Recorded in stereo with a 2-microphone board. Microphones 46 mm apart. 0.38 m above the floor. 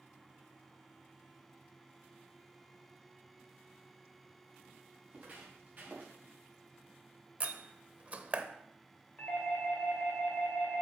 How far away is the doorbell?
About 2.5 m.